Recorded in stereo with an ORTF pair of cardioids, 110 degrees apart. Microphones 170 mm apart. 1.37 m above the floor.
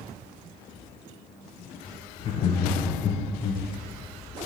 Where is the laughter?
40° left, 0.5 m.